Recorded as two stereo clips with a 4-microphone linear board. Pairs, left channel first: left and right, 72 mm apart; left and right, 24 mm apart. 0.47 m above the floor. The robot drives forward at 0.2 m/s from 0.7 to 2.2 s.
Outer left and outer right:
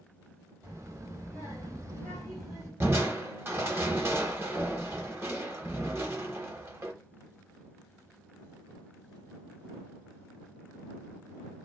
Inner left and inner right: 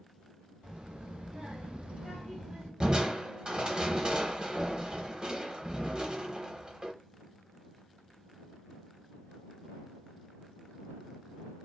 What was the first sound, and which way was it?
A child speaking, 50° right (ahead or behind).